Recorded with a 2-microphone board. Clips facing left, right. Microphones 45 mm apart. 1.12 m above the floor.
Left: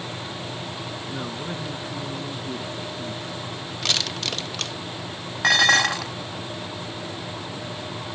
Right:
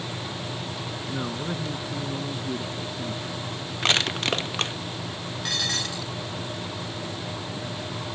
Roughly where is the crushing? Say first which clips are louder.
Right 4 dB; right.